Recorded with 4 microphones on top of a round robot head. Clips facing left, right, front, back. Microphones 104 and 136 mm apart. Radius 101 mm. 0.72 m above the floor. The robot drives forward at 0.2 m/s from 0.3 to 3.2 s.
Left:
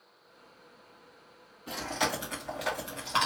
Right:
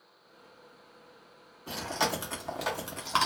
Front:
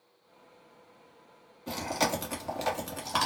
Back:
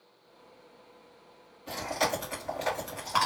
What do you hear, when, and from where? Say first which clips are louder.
1.7 s chewing: right 1 dB, even; 40° right, 1.4 m; by 3.3 s 55° right, 1.2 m